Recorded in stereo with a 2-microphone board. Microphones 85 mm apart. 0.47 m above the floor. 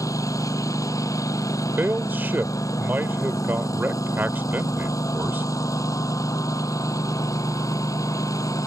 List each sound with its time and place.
0.0 s a lawn mower: 40° left (ahead or behind)
1.8 s a man speaking: 20° right (ahead or behind)